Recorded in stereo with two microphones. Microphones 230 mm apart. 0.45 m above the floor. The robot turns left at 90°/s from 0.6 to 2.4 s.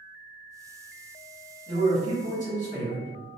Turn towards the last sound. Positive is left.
turn(degrees=55)